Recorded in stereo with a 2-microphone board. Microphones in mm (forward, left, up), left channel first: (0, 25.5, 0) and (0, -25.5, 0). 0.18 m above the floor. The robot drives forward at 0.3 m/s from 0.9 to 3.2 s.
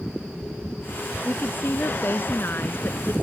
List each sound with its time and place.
1.2 s a woman speaking: 50° left (ahead or behind); by 3.1 s 45° left (ahead or behind)